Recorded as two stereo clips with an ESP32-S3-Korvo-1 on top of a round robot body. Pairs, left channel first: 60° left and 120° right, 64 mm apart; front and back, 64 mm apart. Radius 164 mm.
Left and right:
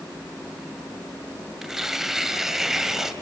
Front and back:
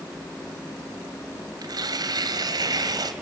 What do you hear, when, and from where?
1.6 s tearing paper: 155° left, 2.5 m